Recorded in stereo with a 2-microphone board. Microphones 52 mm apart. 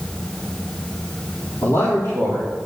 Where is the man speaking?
60° left (ahead or behind), 3 m.